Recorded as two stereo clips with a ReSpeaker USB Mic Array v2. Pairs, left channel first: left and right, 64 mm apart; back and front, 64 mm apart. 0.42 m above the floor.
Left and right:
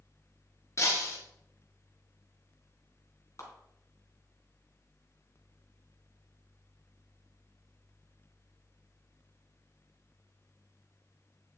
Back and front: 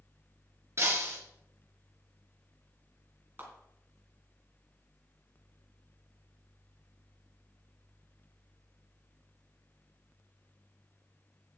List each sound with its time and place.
0.8 s breaking glass: 50° left, 4 m
3.4 s a clap: 60° left, 3.5 m